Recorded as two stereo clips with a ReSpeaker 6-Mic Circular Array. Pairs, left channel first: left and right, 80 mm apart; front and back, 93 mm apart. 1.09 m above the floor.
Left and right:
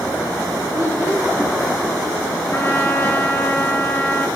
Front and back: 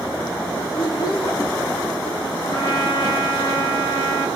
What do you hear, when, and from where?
0.7 s a child speaking: 35° right, 1.1 m
2.5 s a trumpet: 20° left, 1.5 m